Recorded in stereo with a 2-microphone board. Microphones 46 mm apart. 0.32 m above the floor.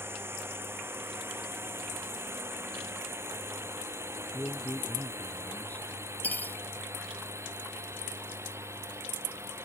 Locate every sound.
0.0 s a drone: 60° right (ahead or behind); by 9.7 s 80° right
4.3 s a man speaking: 35° left (ahead or behind)
6.2 s cutlery clinking: 40° left (ahead or behind)